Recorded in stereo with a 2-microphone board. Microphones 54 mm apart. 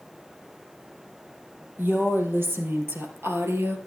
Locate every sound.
1.8 s a woman speaking: 45° right (ahead or behind), 4 m; by 3.8 s 60° right (ahead or behind), 2.5 m